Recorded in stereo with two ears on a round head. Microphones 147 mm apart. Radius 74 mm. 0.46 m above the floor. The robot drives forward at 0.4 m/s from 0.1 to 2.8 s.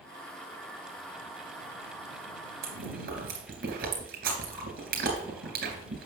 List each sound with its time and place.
2.6 s chewing: 65° right (ahead or behind), 3 m